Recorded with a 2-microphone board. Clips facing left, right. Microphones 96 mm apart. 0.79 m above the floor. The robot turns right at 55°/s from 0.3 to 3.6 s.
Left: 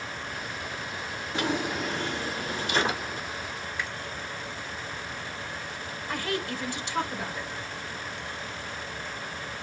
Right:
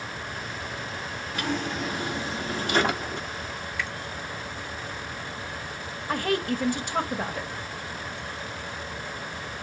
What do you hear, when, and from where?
1.3 s a drawer: 155° left, 1.1 m; by 3.3 s 100° right, 1.1 m
3.8 s a finger snap: 20° left (ahead or behind), 2 m
6.1 s a woman speaking: 50° right (ahead or behind), 1.0 m